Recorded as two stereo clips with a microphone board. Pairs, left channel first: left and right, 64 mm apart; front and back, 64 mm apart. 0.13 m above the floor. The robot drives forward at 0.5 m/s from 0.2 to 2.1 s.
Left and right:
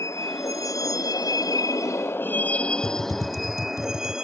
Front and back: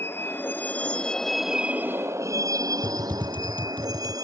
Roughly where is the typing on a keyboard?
Ahead left.